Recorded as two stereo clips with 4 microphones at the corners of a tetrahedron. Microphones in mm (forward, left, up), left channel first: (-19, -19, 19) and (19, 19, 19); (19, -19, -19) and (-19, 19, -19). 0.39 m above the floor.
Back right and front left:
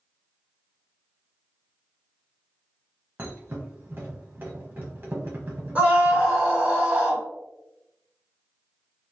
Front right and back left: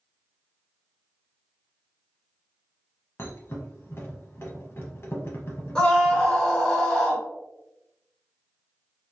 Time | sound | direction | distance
3.2 | a thud | 5° right | 1.0 m
5.8 | a scream | 15° left | 1.8 m